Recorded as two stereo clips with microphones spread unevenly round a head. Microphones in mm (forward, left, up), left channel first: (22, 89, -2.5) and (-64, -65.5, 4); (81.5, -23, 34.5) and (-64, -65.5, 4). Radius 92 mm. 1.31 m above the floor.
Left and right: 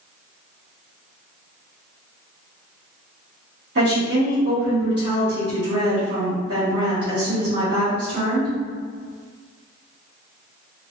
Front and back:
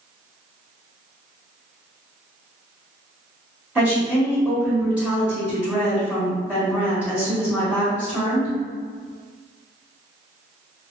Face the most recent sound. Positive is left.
turn(degrees=-80)